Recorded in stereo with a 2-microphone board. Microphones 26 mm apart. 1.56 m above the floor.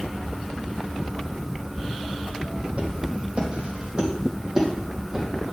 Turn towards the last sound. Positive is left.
turn(degrees=-20)  # may be behind; listen again after turning